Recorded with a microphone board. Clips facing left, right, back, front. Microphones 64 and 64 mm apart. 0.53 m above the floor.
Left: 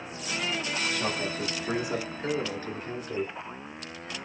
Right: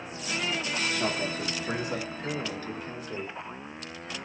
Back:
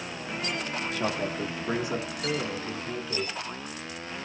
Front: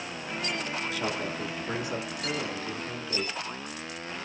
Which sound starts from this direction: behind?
A man speaking, at 0.9 s.